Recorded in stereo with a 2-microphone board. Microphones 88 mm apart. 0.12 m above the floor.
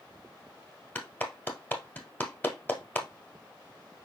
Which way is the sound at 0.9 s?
20° left (ahead or behind).